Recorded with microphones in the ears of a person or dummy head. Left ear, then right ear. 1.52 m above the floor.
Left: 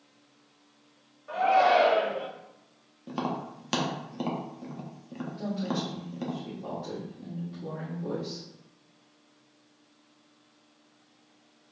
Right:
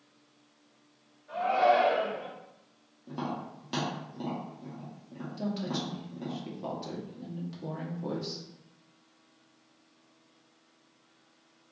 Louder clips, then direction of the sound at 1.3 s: Left 3 dB; 60° left (ahead or behind).